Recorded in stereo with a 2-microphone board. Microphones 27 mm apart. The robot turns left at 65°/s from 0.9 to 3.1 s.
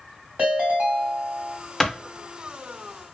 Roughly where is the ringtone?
Right.